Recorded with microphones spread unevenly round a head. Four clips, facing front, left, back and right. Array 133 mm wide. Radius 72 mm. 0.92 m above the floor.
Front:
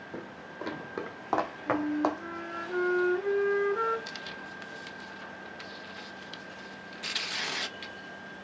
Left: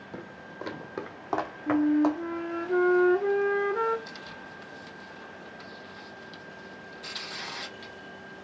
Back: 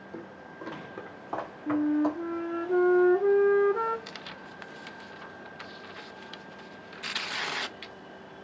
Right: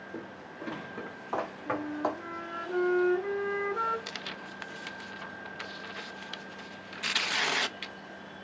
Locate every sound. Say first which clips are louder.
0.1 s footsteps: left 2 dB, front 1 dB; 50° left, 1.5 m; by 2.2 s 5° left, 2 m
1.7 s a flute: left 11 dB, back 4 dB; 150° left, 0.5 m
4.1 s tearing paper: right 1 dB, front 2 dB; 80° right, 0.5 m